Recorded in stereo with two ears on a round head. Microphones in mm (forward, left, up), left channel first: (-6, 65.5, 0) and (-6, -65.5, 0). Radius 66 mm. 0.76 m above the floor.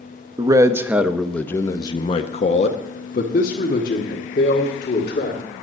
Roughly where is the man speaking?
Right.